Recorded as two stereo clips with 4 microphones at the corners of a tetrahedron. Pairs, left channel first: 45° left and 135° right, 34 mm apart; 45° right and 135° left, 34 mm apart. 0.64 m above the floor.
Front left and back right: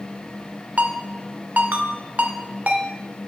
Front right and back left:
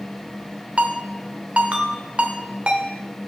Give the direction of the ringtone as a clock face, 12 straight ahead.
6 o'clock.